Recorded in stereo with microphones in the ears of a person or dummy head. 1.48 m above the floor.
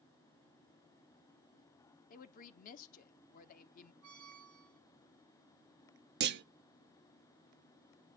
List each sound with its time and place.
2.1 s a woman speaking: 50° left (ahead or behind), 0.9 m
4.0 s a squeak: 70° right (ahead or behind), 1.1 m
6.2 s a clunk: 55° right (ahead or behind), 0.6 m